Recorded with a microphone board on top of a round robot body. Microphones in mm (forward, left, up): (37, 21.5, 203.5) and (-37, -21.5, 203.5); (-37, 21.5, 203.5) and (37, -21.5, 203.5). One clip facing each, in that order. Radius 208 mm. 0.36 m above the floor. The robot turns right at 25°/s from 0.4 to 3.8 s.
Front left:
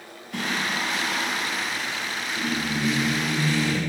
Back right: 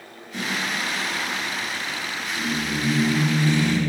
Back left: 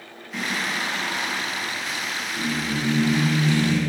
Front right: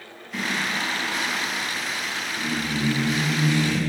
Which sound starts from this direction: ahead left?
Singing, at 0.3 s.